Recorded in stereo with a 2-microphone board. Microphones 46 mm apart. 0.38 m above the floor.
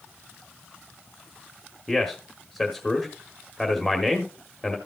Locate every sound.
1.9 s a man speaking: centre (ahead or behind), 1.2 m